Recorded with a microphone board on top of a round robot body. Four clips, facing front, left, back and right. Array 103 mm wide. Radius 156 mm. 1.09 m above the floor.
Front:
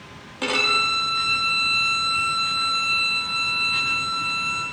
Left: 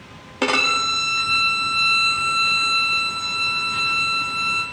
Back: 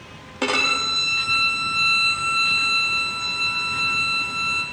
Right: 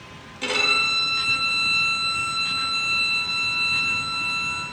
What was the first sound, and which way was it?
A violin, 110° left.